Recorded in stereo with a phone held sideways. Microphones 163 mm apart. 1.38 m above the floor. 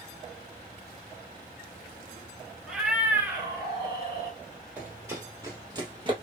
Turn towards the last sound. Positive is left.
turn(degrees=-30)  # may be behind; listen again after turning